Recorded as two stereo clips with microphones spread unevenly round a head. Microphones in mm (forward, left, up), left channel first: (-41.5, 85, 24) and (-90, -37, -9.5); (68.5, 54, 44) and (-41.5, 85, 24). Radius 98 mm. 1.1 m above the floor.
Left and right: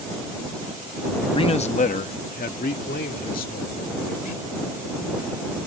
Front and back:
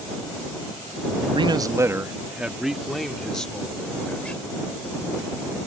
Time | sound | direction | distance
1.3 | a man speaking | 125° left | ?